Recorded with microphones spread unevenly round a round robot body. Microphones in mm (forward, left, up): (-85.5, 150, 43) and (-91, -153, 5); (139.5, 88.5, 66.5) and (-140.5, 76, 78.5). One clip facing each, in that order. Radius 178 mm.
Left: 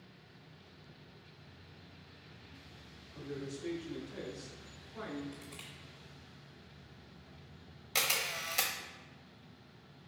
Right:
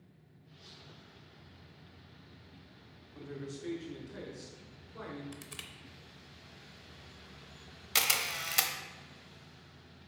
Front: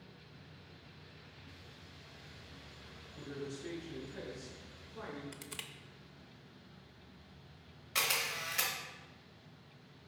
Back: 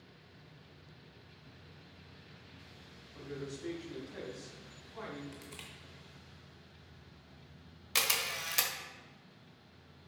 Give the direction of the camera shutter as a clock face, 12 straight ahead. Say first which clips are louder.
Left 1 dB, back 1 dB; 5 o'clock.